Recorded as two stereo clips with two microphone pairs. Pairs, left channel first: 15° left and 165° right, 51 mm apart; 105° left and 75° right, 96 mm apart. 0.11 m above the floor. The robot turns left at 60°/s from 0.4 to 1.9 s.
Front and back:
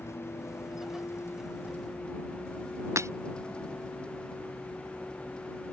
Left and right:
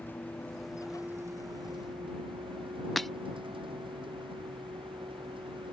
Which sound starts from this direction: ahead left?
A vehicle, at 0.0 s.